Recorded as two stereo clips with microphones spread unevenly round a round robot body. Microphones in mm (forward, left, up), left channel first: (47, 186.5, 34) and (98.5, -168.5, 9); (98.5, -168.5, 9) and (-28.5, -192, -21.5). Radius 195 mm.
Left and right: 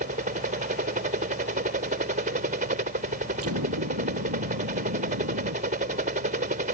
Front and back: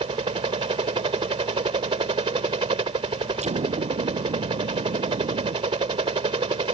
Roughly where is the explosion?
Behind right.